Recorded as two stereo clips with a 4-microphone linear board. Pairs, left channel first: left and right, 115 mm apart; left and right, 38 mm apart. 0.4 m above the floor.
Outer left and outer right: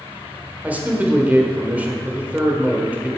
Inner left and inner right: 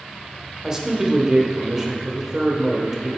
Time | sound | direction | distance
0.6 | a man speaking | 15° right (ahead or behind) | 1.0 m